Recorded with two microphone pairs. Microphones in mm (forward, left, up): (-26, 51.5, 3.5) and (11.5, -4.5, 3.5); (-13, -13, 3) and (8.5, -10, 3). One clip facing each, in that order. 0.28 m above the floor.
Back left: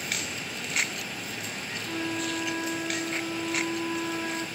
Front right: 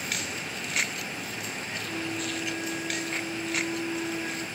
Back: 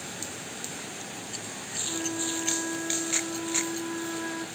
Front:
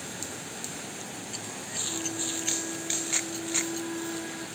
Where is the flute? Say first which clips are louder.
Back left 3 dB, back 2 dB; 145° left, 3 m.